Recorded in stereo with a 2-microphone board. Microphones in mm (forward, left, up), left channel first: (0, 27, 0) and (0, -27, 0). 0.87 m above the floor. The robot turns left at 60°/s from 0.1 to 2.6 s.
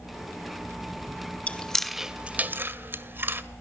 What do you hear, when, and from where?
1.5 s chewing: 25° left (ahead or behind), 1.8 m; by 3.4 s 40° right (ahead or behind), 1.8 m